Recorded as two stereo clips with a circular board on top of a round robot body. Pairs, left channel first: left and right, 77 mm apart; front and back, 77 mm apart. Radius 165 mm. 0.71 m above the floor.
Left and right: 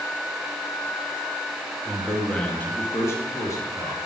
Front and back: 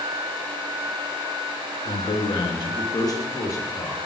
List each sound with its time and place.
1.9 s a man speaking: straight ahead, 1.4 m; by 4.0 s 55° left, 1.6 m